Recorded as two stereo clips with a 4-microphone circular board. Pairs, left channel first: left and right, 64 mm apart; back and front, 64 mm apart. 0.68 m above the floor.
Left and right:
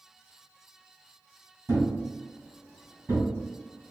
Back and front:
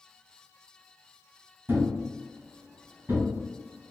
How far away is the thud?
About 1.9 m.